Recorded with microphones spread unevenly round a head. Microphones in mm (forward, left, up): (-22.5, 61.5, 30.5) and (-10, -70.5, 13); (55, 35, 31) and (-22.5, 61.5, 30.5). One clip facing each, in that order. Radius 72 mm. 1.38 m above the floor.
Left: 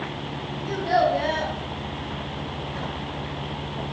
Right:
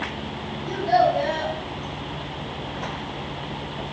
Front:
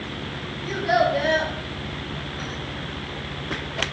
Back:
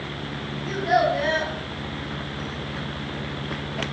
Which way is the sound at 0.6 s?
65° left.